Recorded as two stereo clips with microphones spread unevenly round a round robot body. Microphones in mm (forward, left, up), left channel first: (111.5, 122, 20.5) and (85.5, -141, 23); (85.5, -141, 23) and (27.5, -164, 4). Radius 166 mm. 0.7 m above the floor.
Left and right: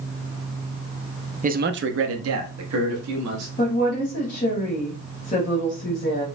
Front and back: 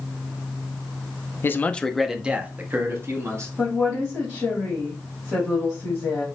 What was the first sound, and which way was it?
A man speaking, 40° right.